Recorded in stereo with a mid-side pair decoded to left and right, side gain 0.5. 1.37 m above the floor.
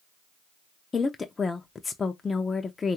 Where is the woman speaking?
30° left, 0.5 m.